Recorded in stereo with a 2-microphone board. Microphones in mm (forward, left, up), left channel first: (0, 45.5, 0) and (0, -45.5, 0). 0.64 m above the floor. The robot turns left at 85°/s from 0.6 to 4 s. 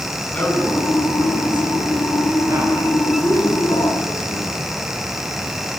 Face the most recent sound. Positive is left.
turn(degrees=80)